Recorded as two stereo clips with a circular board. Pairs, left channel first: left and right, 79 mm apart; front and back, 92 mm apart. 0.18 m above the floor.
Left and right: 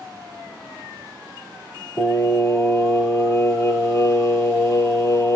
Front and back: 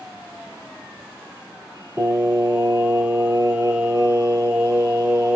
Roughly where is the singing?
Behind left.